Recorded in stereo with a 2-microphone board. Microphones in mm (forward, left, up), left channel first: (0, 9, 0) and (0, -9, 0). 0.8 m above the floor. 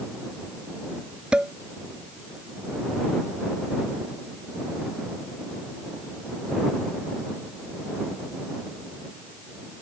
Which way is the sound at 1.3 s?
70° right (ahead or behind).